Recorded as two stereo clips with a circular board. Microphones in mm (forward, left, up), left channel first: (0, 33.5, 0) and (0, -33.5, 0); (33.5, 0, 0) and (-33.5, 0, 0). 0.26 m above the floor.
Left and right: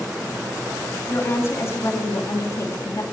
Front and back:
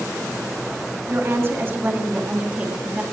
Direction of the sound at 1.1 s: 140° left.